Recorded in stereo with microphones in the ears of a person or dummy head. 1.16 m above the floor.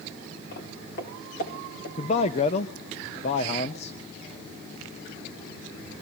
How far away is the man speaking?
About 1.0 m.